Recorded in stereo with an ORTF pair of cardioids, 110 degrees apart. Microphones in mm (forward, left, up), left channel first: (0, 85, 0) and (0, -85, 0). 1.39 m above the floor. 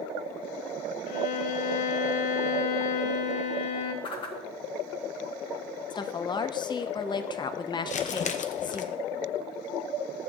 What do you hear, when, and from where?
1.1 s a violin: 55° left, 2 m
4.0 s a whoosh: 30° left, 1.6 m
5.9 s a woman speaking: 25° left, 0.9 m
7.9 s crumpling: 45° left, 0.9 m